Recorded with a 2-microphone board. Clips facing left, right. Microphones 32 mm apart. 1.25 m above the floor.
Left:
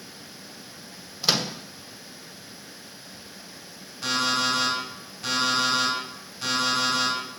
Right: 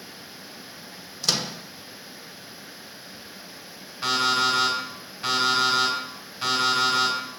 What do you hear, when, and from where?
1.2 s a microwave: 20° left (ahead or behind), 0.6 m
4.0 s an alarm clock: 25° right (ahead or behind), 3.5 m